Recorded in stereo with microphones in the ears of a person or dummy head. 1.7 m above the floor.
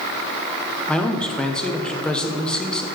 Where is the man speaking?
5° left (ahead or behind), 0.9 m.